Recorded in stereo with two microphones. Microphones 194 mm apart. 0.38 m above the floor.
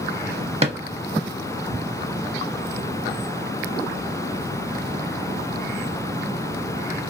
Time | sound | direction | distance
0.6 | a drawer | 30° right (ahead or behind) | 0.6 m